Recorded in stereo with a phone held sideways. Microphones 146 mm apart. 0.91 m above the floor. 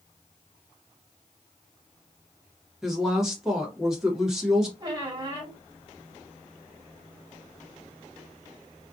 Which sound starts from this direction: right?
A squeak, at 4.8 s.